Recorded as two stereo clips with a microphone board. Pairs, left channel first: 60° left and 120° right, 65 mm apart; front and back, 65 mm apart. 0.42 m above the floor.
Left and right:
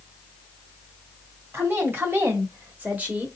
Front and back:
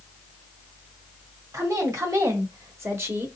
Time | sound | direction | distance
1.5 | a woman speaking | 170° right | 2 m